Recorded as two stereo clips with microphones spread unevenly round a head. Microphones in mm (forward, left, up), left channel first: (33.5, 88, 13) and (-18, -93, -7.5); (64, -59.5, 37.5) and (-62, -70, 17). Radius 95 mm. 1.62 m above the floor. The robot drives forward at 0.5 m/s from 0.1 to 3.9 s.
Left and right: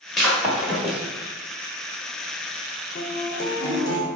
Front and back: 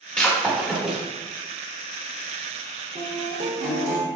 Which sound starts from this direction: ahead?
Breaking glass, at 0.2 s.